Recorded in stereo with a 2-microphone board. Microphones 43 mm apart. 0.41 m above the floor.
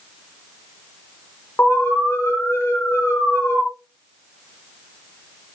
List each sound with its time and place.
1.6 s an alarm: 75° left (ahead or behind), 6.5 m